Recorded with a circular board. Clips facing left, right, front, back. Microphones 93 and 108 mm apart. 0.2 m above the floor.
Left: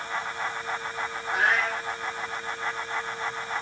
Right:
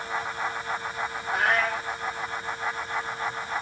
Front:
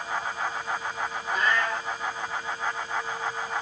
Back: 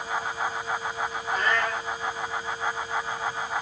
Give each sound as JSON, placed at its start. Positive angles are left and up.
{"t": 1.3, "sound": "a cat meowing", "azimuth_deg": -135, "distance_m": 3.5}